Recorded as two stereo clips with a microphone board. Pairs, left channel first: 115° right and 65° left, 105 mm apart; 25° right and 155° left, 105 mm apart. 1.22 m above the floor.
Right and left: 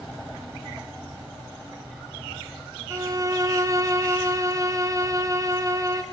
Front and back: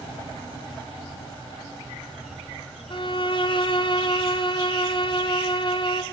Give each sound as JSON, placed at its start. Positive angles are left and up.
{"t": 2.9, "sound": "a violin", "azimuth_deg": 10, "distance_m": 2.5}